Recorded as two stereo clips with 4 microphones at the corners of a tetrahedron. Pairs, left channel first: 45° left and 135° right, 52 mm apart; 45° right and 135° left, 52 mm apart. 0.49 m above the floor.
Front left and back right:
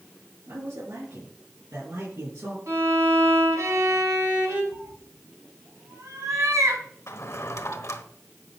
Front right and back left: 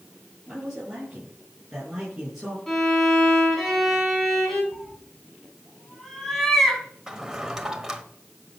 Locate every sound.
0.5 s a man speaking: 145° right, 6.5 m; by 2.6 s 140° right, 5 m
2.7 s a violin: 130° right, 3.5 m
4.7 s a cat meowing: 130° right, 2 m
7.1 s a drawer: 55° left, 1.2 m